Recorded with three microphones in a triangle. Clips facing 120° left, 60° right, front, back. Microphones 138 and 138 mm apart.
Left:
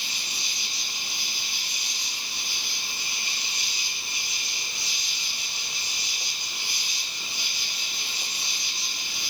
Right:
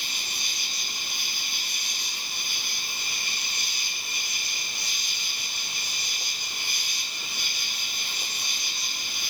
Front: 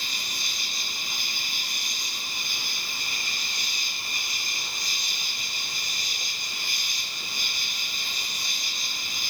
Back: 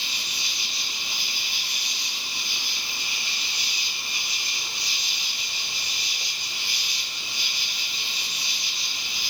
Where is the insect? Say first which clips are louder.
Even, even; 35° right, 1.6 m.